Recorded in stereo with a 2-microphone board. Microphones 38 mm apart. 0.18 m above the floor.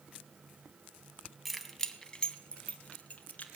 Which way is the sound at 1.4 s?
Centre (ahead or behind).